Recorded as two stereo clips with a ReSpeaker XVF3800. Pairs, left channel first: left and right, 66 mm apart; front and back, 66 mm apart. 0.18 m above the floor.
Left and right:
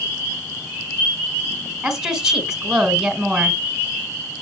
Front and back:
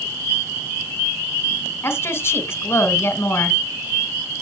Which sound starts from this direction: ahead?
A woman speaking, at 1.8 s.